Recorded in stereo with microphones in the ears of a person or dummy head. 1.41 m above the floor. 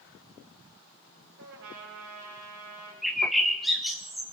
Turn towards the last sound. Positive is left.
turn(degrees=0)  # may be behind; listen again after turning